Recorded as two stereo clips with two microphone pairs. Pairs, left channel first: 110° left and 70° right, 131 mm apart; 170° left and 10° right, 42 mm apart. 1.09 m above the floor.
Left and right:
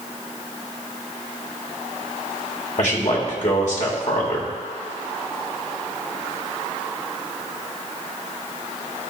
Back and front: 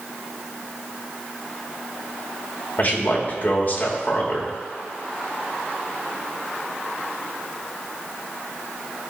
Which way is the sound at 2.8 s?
125° left.